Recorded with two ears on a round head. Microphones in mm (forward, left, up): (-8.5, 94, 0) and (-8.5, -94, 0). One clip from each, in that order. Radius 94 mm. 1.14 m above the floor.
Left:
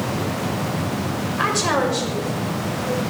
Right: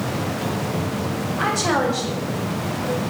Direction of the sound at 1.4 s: 75° left (ahead or behind).